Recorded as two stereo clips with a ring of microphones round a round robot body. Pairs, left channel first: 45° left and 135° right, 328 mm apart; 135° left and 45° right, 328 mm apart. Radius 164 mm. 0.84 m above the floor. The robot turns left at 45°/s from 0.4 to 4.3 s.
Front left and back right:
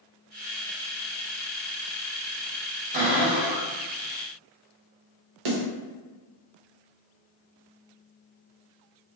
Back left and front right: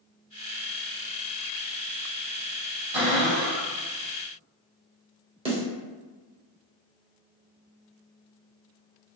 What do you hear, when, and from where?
2.9 s a cupboard door: 70° right, 1.9 m; by 3.7 s 105° right, 1.9 m
5.5 s a snare drum: 120° right, 1.0 m